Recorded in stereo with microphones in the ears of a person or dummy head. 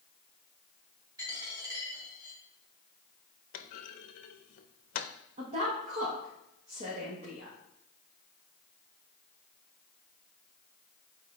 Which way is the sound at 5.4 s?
45° right (ahead or behind).